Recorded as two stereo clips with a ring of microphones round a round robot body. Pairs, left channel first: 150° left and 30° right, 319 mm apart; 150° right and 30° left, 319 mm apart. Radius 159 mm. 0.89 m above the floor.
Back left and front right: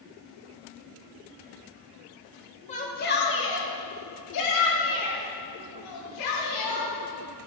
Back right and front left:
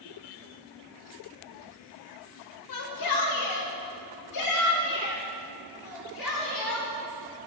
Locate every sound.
2.7 s a shout: 140° right, 1.8 m; by 6.9 s 155° left, 4 m